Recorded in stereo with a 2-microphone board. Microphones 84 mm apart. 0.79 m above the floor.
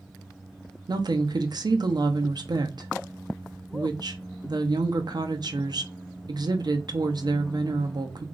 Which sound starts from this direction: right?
A woman speaking, at 0.9 s.